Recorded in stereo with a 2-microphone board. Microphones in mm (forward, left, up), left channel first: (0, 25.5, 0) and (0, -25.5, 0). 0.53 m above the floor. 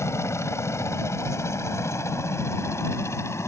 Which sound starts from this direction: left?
A helicopter, at 0.0 s.